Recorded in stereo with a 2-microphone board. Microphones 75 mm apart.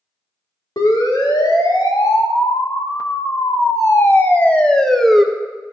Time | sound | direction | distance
0.8 | a siren | 65° left (ahead or behind) | 3.5 m